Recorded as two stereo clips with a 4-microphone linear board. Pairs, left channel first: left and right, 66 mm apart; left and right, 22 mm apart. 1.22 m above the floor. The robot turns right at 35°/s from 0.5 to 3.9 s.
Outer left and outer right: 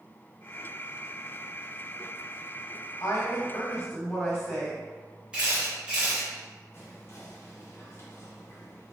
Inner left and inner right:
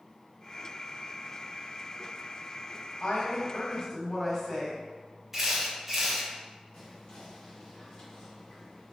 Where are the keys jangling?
No keys jangling in this recording.